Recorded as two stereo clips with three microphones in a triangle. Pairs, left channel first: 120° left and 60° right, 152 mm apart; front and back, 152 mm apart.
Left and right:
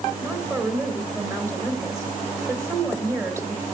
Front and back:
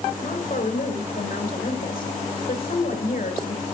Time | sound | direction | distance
0.2 | a woman speaking | 10° left | 4.5 m